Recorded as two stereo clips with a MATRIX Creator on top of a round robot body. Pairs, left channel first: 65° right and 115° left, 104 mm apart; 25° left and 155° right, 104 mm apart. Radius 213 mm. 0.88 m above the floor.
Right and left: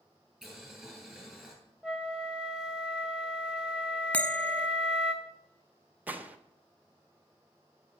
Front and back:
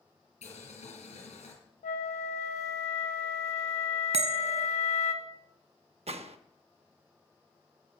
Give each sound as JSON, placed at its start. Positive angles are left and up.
{"t": 0.4, "sound": "boiling", "azimuth_deg": 20, "distance_m": 4.0}
{"t": 1.8, "sound": "a flute", "azimuth_deg": 25, "distance_m": 0.7}
{"t": 4.1, "sound": "a bell", "azimuth_deg": -145, "distance_m": 0.8}
{"t": 6.1, "sound": "a gunshot", "azimuth_deg": -175, "distance_m": 0.9}